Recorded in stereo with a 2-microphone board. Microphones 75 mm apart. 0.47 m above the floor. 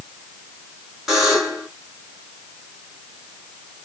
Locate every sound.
1.1 s a buzzer: 5° right (ahead or behind), 2.5 m